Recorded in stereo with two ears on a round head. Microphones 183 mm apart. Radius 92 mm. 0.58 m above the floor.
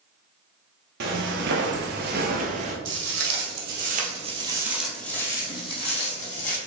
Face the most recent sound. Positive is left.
turn(degrees=40)  # may be behind; listen again after turning